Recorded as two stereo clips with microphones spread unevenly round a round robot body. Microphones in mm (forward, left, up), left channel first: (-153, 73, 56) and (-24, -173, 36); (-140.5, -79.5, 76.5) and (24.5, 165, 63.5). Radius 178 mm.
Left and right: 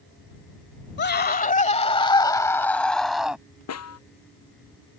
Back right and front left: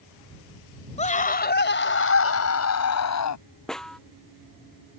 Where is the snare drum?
150° left.